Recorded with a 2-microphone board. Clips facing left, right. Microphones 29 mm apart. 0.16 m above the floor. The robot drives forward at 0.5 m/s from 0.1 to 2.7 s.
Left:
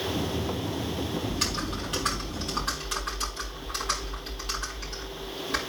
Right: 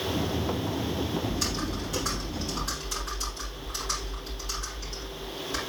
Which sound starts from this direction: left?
Typing on a keyboard, at 1.3 s.